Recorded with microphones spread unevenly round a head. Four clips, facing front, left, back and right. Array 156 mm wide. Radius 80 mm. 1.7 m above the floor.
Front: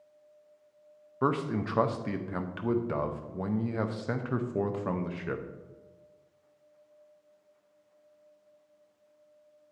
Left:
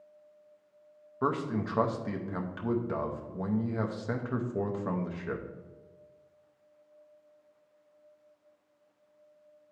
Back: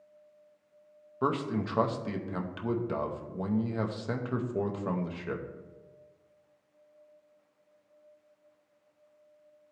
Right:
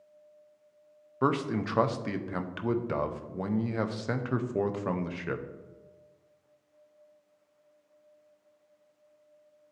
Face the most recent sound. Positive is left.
turn(degrees=-80)